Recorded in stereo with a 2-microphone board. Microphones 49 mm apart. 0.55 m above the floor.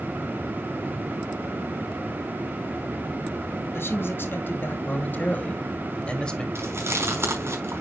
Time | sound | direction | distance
3.7 | a man speaking | 60° left (ahead or behind) | 2.5 m
6.5 | chewing | 65° right (ahead or behind) | 5 m